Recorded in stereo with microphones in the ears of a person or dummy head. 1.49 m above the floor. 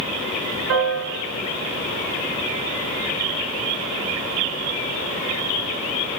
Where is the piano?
80° right, 6 m.